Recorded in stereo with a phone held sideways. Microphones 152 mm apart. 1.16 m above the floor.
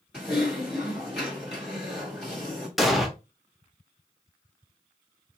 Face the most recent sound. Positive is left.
turn(degrees=0)  # may be behind; listen again after turning